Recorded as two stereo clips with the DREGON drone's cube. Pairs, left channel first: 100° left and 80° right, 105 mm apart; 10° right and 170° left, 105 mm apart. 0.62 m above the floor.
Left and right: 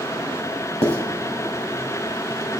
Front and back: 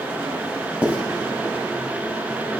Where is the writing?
95° left, 2.5 m.